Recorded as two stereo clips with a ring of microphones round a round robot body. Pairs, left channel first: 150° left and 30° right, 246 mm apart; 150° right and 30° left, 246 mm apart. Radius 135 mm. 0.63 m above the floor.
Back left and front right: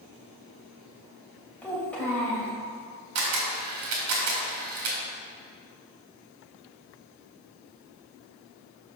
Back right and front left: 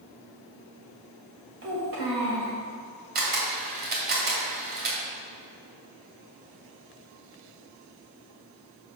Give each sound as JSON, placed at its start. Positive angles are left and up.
{"t": 1.6, "sound": "a child speaking", "azimuth_deg": 65, "distance_m": 2.5}
{"t": 3.1, "sound": "a camera shutter", "azimuth_deg": -25, "distance_m": 1.7}